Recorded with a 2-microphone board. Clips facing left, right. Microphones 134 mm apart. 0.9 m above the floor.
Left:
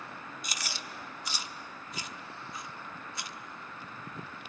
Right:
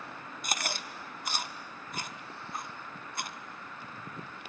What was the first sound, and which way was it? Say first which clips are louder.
Chewing: right 8 dB; 55° right (ahead or behind).